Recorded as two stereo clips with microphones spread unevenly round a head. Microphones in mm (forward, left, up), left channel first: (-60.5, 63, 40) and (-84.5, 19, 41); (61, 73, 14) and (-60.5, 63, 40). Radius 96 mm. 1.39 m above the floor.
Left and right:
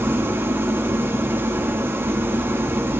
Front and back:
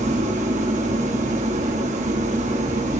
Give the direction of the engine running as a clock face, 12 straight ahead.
5 o'clock.